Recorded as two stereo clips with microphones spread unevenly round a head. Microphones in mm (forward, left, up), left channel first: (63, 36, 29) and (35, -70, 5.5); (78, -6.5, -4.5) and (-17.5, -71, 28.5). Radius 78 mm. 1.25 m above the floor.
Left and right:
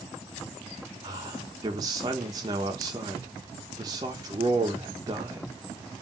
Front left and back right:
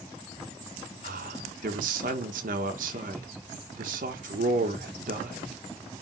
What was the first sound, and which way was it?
A man speaking, 165° right.